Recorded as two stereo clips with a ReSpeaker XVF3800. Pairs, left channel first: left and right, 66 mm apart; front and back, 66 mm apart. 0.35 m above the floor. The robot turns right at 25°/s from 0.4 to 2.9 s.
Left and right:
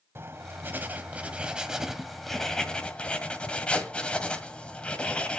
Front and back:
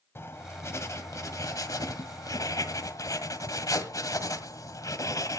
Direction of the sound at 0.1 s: 45° right.